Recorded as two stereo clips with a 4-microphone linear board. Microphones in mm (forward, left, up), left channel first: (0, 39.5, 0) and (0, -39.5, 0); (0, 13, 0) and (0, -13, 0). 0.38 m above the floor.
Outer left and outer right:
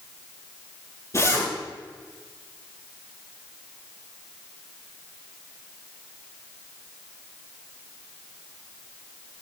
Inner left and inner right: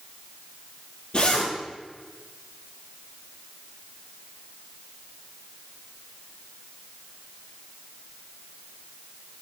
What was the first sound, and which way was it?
A zipper, 45° left (ahead or behind).